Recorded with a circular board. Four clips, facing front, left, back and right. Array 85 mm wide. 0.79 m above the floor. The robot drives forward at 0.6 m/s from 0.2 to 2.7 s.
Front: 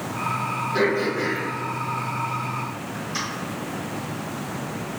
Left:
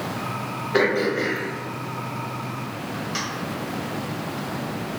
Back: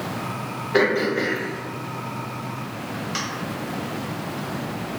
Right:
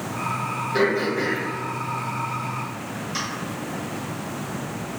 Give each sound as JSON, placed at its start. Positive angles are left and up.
{"t": 0.7, "sound": "throat clearing", "azimuth_deg": 140, "distance_m": 0.8}